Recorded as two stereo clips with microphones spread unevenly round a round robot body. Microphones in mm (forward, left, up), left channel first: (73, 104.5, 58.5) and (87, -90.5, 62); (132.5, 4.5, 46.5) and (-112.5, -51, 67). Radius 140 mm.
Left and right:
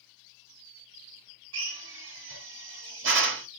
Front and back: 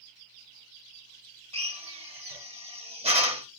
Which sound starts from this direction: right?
A drill, at 1.5 s.